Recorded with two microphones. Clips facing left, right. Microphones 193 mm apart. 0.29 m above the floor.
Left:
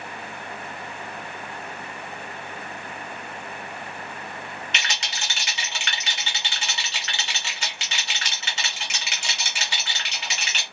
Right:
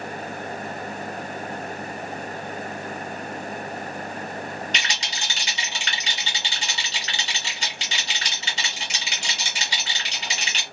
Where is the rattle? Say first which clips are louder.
Right 1 dB; 40° right (ahead or behind), 2 m.